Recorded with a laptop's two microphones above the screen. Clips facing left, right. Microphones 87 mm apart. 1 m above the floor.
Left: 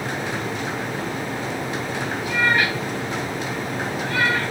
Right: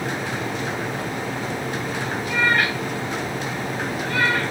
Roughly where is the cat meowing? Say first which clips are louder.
Even; centre.